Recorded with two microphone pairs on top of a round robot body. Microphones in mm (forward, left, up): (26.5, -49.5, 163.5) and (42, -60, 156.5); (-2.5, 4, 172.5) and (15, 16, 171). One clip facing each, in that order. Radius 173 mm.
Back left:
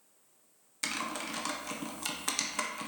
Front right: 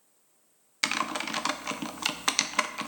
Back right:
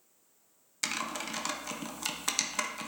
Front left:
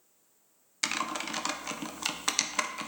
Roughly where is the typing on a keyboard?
Ahead right.